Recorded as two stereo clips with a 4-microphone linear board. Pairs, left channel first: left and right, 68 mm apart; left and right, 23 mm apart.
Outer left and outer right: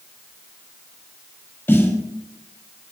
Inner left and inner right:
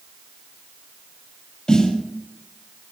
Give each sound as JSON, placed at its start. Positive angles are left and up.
{"t": 1.7, "sound": "a snare drum", "side_deg": 30, "distance_m": 4.0}